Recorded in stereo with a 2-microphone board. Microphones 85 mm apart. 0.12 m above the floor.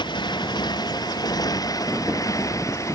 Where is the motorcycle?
65° left (ahead or behind); by 3.0 s 40° left (ahead or behind).